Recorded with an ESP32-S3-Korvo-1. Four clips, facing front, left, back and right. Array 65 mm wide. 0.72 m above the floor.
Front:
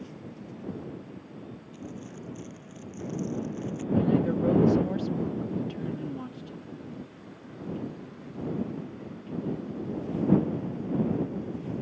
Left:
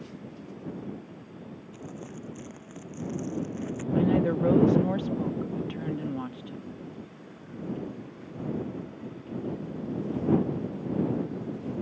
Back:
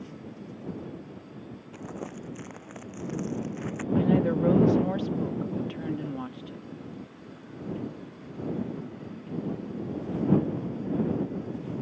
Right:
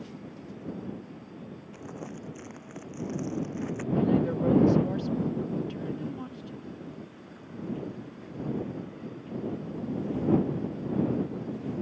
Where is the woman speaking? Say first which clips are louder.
Left 2 dB, back 1 dB; 135° left.